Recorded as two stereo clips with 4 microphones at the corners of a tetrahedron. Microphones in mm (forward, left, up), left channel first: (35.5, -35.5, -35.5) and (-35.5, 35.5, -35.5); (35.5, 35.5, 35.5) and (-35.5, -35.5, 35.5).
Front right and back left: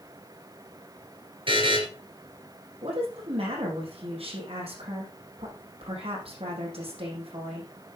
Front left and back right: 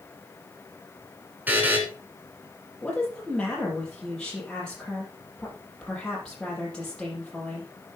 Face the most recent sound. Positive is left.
turn(degrees=130)